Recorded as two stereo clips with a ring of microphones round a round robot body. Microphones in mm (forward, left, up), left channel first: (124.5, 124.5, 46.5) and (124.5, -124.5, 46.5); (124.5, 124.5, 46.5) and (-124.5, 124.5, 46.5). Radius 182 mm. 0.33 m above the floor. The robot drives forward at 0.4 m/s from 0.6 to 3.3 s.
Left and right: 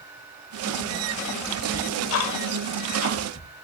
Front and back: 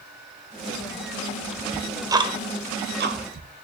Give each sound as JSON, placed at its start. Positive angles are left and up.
{"t": 1.7, "sound": "ticking", "azimuth_deg": 90, "distance_m": 0.7}